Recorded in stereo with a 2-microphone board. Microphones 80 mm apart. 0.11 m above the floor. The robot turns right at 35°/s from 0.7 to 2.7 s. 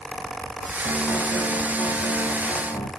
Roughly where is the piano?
Ahead left.